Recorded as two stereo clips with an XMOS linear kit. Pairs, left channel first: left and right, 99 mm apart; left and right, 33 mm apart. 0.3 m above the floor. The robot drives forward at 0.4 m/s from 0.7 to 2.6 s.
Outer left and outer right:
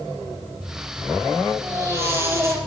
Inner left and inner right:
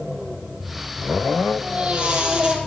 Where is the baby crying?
25° right (ahead or behind), 5.5 m; by 2.6 s 30° right (ahead or behind), 5 m.